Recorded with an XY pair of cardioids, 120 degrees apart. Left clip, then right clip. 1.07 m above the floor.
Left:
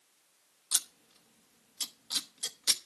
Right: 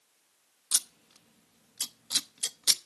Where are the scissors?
35° right, 0.9 m.